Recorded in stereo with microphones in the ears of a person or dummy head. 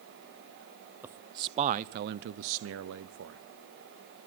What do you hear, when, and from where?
1.0 s a man speaking: 15° right (ahead or behind), 0.7 m; by 3.4 s 65° right (ahead or behind), 1.0 m